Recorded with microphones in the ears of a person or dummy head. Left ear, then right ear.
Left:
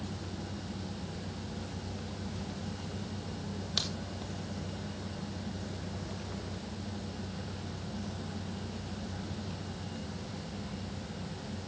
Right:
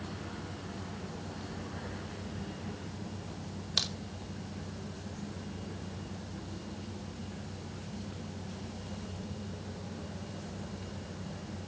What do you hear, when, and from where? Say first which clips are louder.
3.8 s a crack: right 2 dB; 10° right (ahead or behind), 1.7 m